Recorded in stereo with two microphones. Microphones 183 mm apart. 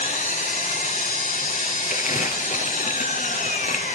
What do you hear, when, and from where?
0.0 s an engine running: 45° left (ahead or behind), 1.8 m
1.9 s crumpling: 45° left (ahead or behind), 2.5 m